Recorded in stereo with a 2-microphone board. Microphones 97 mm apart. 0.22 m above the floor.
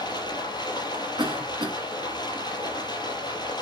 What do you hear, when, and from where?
0.0 s running water: 45° left (ahead or behind), 4 m
1.2 s a cough: 50° right (ahead or behind), 2 m